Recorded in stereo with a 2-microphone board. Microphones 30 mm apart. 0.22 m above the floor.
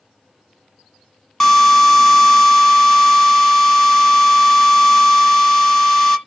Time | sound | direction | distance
1.4 | a drill | 15° left (ahead or behind) | 1.2 m